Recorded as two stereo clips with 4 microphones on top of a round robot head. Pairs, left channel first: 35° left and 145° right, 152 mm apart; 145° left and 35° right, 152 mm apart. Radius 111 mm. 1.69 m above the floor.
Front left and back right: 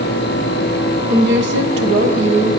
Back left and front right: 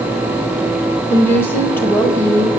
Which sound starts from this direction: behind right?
A woman speaking, at 1.1 s.